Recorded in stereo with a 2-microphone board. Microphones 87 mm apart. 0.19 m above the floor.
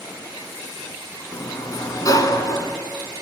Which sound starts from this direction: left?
A sliding door, at 1.3 s.